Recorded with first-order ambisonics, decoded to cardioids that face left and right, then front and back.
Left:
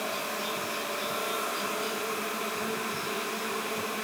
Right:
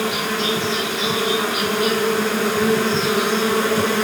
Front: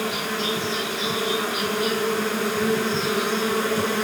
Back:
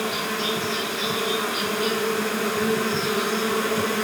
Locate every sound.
0.0 s an insect: 85° right